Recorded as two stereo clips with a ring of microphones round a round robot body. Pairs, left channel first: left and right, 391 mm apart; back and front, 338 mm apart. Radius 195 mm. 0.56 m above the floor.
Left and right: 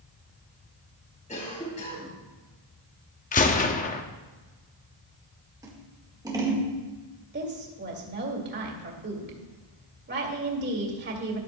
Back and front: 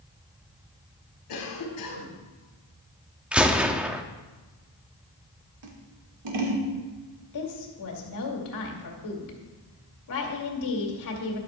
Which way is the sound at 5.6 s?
10° right.